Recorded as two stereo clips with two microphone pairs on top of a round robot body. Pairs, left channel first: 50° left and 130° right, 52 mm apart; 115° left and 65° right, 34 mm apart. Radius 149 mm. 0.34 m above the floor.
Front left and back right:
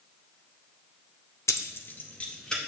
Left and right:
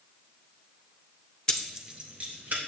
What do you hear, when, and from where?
1.5 s keys jangling: 50° left, 0.8 m; by 2.6 s 25° right, 1.8 m